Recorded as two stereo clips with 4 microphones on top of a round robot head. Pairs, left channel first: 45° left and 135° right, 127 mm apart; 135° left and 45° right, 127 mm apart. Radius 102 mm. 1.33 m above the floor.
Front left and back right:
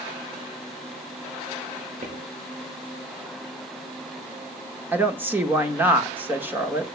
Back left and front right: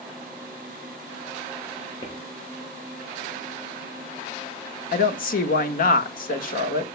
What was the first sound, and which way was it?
Footsteps, 160° right.